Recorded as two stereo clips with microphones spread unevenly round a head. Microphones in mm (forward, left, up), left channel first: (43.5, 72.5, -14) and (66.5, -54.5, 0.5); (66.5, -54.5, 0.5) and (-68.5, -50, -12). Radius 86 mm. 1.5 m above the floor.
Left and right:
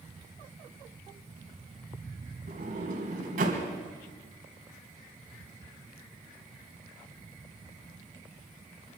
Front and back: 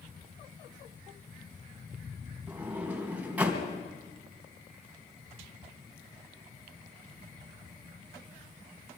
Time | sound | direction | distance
2.5 | a sliding door | 100° right | 3.5 m